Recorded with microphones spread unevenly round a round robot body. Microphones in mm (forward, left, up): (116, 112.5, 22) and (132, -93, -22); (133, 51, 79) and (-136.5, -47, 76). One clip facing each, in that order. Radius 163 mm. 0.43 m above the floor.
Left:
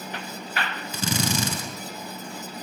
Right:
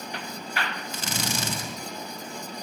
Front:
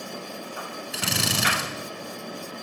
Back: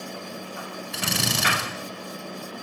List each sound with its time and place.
0.9 s a drill: 110° left, 5.5 m